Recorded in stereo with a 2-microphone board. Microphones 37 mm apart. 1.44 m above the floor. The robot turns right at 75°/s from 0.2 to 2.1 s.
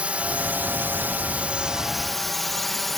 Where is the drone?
135° right; by 3.0 s 5° left.